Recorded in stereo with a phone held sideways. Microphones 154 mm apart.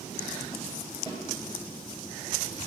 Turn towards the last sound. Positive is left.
turn(degrees=30)  # may be behind; listen again after turning